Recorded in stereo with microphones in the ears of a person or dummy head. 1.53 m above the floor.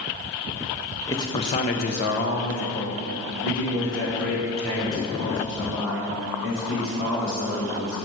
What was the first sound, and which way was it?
A man speaking, 10° left (ahead or behind).